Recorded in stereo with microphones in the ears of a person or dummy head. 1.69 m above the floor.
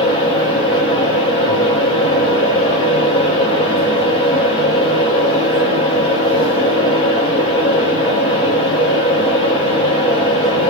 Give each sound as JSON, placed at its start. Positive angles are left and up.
{"t": 0.0, "sound": "a fan", "side_deg": 25, "distance_m": 1.7}